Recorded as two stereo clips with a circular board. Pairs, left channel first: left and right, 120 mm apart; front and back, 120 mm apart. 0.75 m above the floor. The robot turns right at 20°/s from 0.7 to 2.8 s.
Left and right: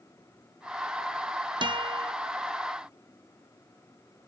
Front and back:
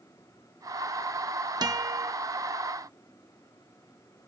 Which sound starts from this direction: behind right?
A guitar, at 1.6 s.